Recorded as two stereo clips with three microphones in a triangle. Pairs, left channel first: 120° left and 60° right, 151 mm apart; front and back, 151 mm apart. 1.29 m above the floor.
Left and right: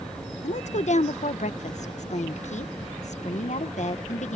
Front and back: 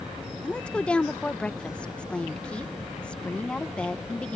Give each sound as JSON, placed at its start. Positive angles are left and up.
{"t": 0.4, "sound": "a woman speaking", "azimuth_deg": 80}